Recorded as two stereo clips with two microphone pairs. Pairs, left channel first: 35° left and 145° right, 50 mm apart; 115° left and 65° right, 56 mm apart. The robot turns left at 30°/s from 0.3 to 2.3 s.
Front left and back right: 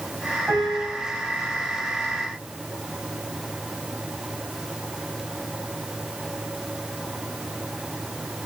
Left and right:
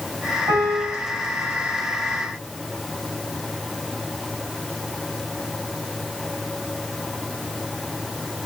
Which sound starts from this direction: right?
A piano, at 0.5 s.